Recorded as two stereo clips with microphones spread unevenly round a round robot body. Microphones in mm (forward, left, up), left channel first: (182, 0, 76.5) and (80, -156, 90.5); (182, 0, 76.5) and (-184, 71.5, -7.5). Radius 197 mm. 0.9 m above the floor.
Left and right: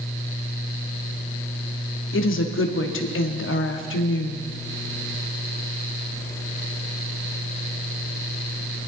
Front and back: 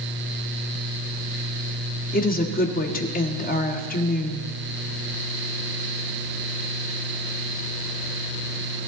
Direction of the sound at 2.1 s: 60° left.